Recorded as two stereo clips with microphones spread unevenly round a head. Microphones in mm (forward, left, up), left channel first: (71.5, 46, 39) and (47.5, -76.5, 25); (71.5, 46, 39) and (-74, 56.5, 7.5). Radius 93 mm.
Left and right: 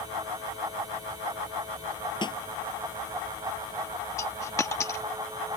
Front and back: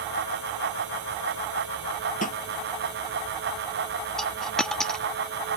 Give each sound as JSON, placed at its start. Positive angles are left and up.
{"t": 2.2, "sound": "a snare drum", "azimuth_deg": 25}
{"t": 4.2, "sound": "a dropped coin", "azimuth_deg": 55}